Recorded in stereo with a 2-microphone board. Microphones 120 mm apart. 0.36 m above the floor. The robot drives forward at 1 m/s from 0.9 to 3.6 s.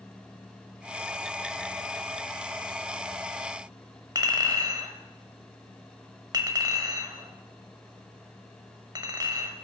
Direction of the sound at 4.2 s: 35° right (ahead or behind).